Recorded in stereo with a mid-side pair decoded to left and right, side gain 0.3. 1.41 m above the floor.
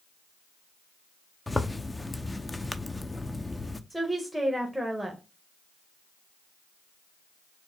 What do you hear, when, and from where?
1.5 s a zipper: 20° left, 0.6 m
3.9 s a woman speaking: 10° right, 1.1 m